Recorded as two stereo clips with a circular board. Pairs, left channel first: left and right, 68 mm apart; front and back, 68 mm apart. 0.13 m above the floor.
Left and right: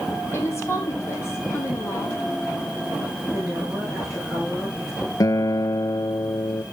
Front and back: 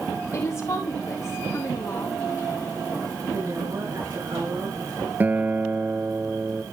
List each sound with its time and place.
0.3 s a woman speaking: 40° left, 4.5 m
3.3 s a woman speaking: straight behind, 7 m
5.2 s a guitar: 115° left, 0.5 m